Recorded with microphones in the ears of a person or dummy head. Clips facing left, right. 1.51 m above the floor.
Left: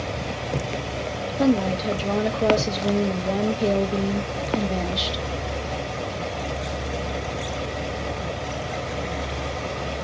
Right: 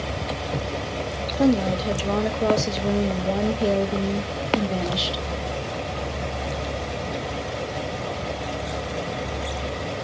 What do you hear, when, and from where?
1.4 s a woman speaking: centre (ahead or behind), 0.5 m